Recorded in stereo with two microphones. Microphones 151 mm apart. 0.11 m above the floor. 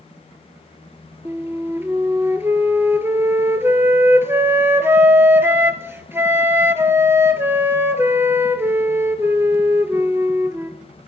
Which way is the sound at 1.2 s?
15° right (ahead or behind).